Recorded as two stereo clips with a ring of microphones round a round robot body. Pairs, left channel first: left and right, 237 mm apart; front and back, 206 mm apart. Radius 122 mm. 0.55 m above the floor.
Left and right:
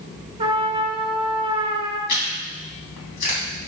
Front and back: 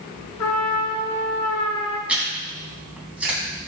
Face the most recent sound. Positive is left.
turn(degrees=95)